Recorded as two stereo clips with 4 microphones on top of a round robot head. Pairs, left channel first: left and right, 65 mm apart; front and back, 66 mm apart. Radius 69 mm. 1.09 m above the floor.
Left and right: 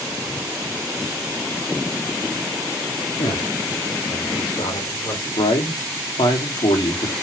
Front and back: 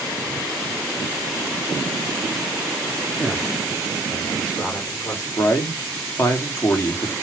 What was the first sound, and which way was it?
A man speaking, 85° left.